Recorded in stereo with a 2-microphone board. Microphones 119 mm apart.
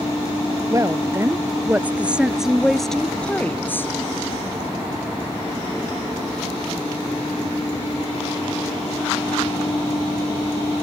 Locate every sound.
0.7 s a woman speaking: 25° right (ahead or behind); by 3.9 s 20° left (ahead or behind)